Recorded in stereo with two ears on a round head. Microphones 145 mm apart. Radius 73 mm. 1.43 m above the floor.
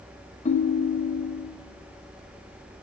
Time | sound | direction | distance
0.5 | a ringtone | 40° left (ahead or behind) | 0.6 m